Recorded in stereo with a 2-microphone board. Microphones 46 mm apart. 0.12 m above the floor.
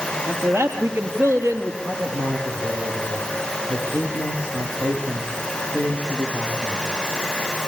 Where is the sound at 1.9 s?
45° right (ahead or behind), 7.5 m.